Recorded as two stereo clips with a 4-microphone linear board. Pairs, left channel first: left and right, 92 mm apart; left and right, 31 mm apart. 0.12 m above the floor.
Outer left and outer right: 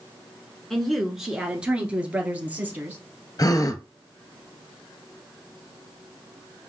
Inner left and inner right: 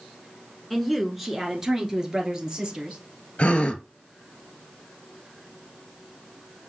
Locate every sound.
0.7 s a woman speaking: 5° left (ahead or behind), 1.1 m; by 3.0 s 20° right (ahead or behind), 2 m
3.4 s a gasp: 40° left (ahead or behind), 0.6 m